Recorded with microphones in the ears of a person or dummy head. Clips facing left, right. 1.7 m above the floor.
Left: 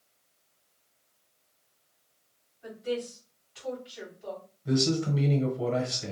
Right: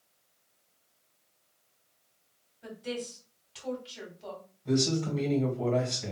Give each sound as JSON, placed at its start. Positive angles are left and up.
{"t": 2.6, "sound": "a woman speaking", "side_deg": -50, "distance_m": 2.0}
{"t": 4.7, "sound": "a man speaking", "side_deg": 10, "distance_m": 1.4}